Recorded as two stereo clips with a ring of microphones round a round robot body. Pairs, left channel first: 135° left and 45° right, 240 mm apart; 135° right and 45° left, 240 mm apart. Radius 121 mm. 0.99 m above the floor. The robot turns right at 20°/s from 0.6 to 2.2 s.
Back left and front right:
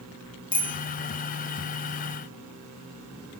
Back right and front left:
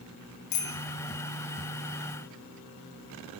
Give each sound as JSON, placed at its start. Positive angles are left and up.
{"t": 0.5, "sound": "a bicycle bell", "azimuth_deg": -155, "distance_m": 5.0}